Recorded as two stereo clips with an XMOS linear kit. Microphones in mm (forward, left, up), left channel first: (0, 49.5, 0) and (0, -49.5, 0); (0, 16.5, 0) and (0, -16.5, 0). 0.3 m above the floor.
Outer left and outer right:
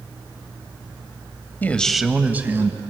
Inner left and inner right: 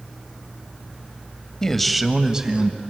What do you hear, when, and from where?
1.6 s a man speaking: 20° left (ahead or behind), 1.2 m; by 2.8 s 30° right (ahead or behind), 2 m